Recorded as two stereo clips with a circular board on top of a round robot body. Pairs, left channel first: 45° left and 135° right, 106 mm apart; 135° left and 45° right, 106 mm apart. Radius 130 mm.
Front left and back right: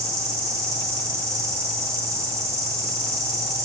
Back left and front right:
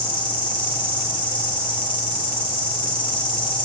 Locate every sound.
0.0 s an insect: 170° left, 3 m